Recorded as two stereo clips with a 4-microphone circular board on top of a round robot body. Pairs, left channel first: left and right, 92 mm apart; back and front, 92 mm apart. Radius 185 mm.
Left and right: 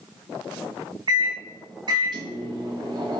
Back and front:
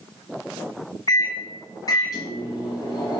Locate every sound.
1.1 s a microwave: 130° right, 0.9 m